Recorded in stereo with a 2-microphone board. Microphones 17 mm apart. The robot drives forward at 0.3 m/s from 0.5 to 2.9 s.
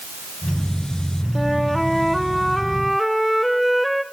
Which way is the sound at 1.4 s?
5° left (ahead or behind).